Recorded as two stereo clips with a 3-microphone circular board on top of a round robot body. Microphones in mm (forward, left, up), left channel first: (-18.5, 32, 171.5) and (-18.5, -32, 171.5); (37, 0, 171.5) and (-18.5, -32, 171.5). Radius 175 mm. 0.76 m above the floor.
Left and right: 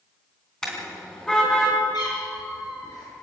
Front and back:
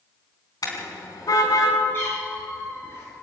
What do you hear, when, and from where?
0.6 s a car horn: 10° left, 4 m
1.9 s a cat meowing: 85° left, 7 m